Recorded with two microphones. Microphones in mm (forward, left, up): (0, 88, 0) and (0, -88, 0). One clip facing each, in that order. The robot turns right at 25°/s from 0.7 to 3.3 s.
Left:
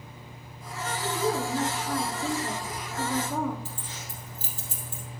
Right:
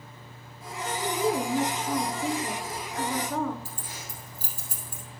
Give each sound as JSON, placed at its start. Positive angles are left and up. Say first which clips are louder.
{"t": 1.0, "sound": "a woman speaking", "louder": "right 1 dB", "azimuth_deg": -45, "distance_m": 1.8}
{"t": 3.6, "sound": "keys jangling", "louder": "left 1 dB", "side_deg": -10, "distance_m": 3.0}